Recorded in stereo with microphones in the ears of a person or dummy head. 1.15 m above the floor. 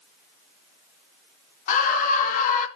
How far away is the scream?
About 2.5 m.